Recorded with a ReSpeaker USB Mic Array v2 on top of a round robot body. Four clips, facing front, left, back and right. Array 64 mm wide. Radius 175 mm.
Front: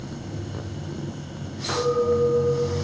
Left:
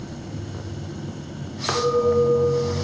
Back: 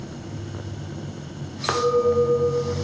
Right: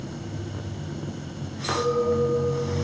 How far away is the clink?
About 0.9 m.